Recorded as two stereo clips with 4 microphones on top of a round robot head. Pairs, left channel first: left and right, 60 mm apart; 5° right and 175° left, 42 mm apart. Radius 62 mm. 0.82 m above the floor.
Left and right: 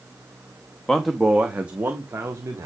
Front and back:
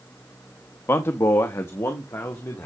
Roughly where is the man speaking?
Ahead.